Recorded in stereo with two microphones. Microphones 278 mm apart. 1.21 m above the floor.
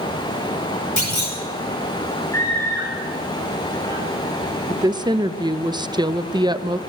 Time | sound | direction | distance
1.0 | a clunk | 80° left | 5.5 m
2.3 | a scream | 10° left (ahead or behind) | 5 m
4.7 | a woman speaking | 15° right (ahead or behind) | 0.8 m